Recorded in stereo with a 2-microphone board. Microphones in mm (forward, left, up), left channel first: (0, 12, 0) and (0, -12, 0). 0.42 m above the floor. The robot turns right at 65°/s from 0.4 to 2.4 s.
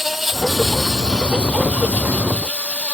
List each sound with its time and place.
0.0 s an insect: 15° right; by 3.0 s 115° left